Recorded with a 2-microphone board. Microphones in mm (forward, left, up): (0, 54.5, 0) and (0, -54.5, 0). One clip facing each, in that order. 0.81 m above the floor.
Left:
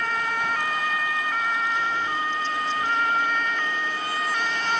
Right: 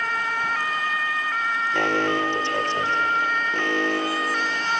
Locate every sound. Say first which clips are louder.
1.7 s an alarm: right 4 dB; 90° right